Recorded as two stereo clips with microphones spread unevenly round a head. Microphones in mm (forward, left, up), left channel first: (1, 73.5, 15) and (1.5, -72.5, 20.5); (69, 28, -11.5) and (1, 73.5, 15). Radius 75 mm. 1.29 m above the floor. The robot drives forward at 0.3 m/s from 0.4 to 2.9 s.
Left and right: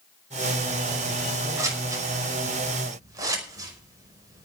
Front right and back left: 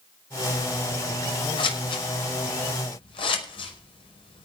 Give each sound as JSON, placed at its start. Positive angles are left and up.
{"t": 1.6, "sound": "scissors", "azimuth_deg": -20, "distance_m": 5.5}